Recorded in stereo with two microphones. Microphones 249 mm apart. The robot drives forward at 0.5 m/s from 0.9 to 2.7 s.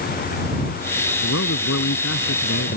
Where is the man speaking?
80° left.